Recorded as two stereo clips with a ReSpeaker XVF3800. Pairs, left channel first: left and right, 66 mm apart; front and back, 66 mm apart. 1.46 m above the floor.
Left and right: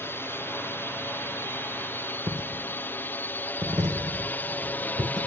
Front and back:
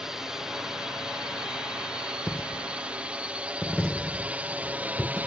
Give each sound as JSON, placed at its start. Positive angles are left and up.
{"t": 0.0, "sound": "a drone", "azimuth_deg": 100}
{"t": 2.3, "sound": "a dropped coin", "azimuth_deg": -75}